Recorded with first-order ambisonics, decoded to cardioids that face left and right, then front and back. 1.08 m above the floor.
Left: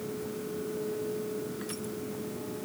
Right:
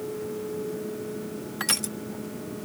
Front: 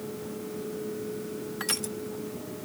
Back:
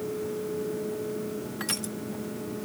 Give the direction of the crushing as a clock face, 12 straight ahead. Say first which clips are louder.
Right 10 dB, front 2 dB; 3 o'clock.